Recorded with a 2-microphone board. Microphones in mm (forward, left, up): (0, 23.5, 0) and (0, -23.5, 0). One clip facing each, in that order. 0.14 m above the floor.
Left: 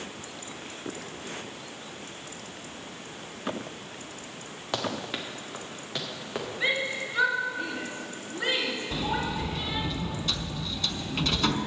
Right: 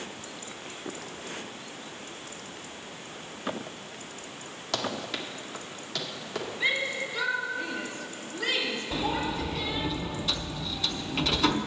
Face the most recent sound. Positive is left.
turn(degrees=-5)  # may be behind; listen again after turning